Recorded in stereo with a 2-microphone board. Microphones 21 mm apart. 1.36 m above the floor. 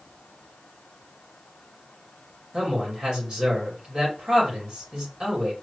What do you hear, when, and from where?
2.5 s a man speaking: 45° right (ahead or behind), 2.5 m